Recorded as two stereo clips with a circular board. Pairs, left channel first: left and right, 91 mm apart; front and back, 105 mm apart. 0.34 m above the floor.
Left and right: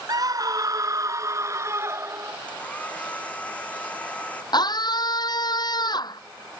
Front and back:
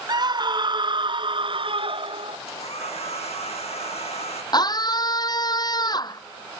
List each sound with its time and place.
0.1 s a scream: 135° right; by 2.4 s 150° right
2.5 s a hair dryer: 15° left
4.5 s a scream: 50° left